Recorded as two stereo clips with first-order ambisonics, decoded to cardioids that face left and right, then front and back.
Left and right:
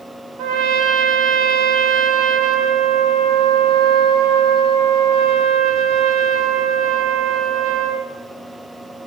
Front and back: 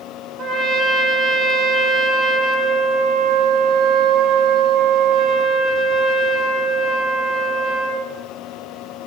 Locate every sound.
0.4 s a trumpet: 115° right, 2.5 m